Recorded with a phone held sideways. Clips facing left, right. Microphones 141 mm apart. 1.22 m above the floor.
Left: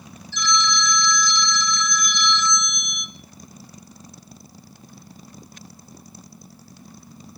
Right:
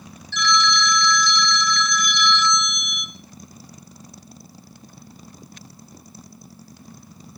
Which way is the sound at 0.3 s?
70° right (ahead or behind).